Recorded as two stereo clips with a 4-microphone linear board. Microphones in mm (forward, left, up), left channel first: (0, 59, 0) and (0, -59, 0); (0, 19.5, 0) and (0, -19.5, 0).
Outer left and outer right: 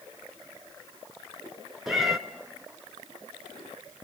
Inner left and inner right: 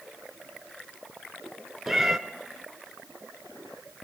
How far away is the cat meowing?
About 0.9 m.